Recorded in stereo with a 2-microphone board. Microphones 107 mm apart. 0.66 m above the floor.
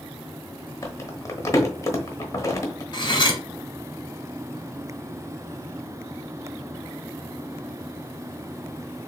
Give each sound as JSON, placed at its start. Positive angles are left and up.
{"t": 0.8, "sound": "crumpling", "side_deg": 30, "distance_m": 1.2}
{"t": 2.9, "sound": "cutlery clinking", "side_deg": 45, "distance_m": 1.4}